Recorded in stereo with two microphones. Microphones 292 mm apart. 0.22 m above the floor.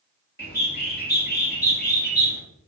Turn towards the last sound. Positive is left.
turn(degrees=35)  # may be behind; listen again after turning